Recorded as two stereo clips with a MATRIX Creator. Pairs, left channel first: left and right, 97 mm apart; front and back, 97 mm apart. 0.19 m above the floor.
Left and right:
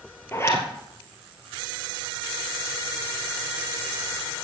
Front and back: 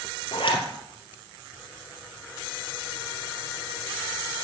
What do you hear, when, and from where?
0.3 s a zipper: 25° left, 2 m